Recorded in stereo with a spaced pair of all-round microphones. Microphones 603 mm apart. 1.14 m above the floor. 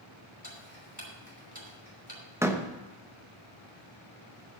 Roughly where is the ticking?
Centre.